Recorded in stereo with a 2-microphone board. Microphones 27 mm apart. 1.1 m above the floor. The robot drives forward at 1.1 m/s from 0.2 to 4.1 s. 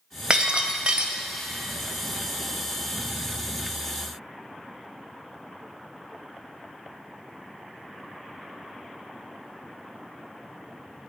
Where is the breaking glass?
35° right (ahead or behind), 1.2 m; by 1.2 s 40° right (ahead or behind), 1.1 m.